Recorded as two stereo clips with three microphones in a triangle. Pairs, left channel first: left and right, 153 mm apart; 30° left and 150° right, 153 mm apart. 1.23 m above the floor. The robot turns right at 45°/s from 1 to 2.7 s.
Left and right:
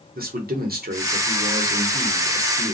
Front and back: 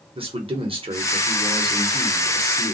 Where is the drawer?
No drawer in this recording.